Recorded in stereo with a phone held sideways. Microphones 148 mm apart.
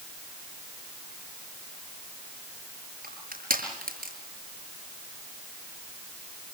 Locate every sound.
3.0 s crushing: 80° right, 6.5 m